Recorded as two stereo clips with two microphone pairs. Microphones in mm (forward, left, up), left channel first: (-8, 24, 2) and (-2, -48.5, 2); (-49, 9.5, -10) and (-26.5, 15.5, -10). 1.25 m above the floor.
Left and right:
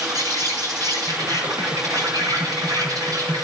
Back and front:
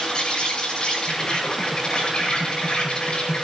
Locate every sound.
0.0 s an insect: 120° right, 8.5 m